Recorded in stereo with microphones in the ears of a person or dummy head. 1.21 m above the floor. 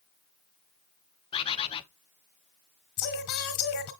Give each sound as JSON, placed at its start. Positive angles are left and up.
{"t": 1.3, "sound": "a bird", "side_deg": 30, "distance_m": 0.5}
{"t": 3.0, "sound": "singing", "side_deg": 50, "distance_m": 1.5}